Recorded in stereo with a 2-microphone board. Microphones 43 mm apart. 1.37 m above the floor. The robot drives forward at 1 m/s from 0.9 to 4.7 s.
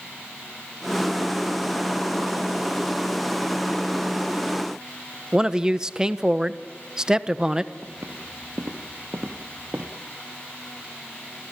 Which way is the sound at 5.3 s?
15° right (ahead or behind).